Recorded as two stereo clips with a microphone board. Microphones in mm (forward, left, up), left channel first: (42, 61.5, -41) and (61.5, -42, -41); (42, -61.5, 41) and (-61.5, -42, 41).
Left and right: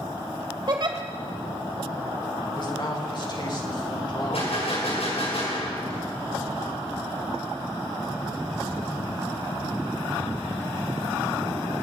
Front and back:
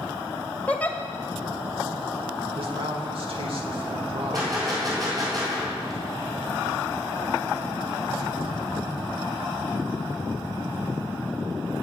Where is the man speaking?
145° left, 2.5 m.